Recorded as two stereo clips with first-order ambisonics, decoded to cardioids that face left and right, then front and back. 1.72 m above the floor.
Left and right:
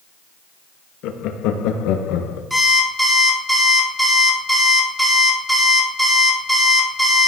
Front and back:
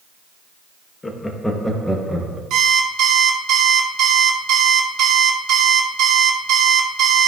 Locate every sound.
1.0 s laughter: 75° left, 1.0 m; by 2.4 s 100° left, 1.6 m
2.5 s an alarm clock: 175° right, 1.4 m